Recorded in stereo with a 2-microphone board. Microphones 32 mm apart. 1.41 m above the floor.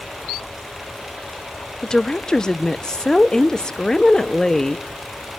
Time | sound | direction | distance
1.8 | a woman speaking | 20° left (ahead or behind) | 0.7 m